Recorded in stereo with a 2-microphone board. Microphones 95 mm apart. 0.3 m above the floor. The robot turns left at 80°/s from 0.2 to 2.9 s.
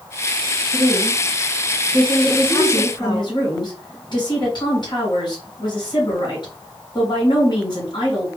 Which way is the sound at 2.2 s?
Straight behind.